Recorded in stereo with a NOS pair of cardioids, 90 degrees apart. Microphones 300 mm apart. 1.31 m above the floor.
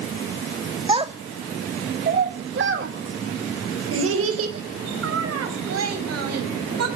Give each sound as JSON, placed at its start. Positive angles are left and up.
{"t": 0.9, "sound": "a child speaking", "azimuth_deg": -15, "distance_m": 1.6}